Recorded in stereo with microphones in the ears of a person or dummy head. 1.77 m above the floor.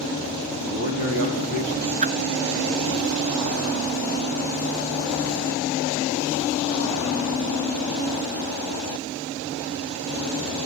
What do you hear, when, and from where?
0.7 s a man speaking: 70° right (ahead or behind), 4 m; by 1.9 s 55° right (ahead or behind), 3 m
2.0 s a whoosh: 35° right (ahead or behind), 1.1 m